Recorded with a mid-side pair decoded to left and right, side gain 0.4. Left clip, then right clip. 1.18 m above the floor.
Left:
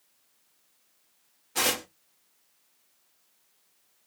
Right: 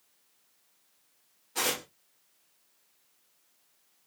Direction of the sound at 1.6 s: 35° left.